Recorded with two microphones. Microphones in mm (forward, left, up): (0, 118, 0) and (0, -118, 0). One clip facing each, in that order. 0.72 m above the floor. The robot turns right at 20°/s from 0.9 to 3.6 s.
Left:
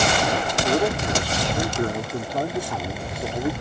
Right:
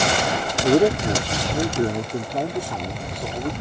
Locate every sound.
0.6 s a man speaking: 35° right; by 3.5 s 15° left